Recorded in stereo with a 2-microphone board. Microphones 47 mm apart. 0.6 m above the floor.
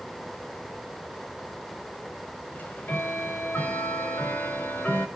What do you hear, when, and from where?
2.5 s ticking: 40° left (ahead or behind), 1.7 m